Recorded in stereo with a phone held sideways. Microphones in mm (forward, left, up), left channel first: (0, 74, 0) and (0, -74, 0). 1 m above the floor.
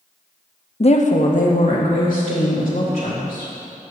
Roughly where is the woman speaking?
Left.